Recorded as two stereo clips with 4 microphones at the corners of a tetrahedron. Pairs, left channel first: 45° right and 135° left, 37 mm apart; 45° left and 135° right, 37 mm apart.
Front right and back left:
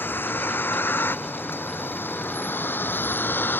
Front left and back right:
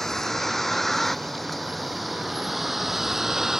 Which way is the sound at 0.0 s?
35° right.